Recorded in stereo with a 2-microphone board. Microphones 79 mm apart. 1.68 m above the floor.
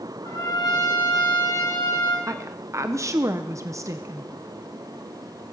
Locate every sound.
0.2 s a trumpet: 50° left (ahead or behind), 5.5 m
2.3 s a woman speaking: 40° right (ahead or behind), 0.7 m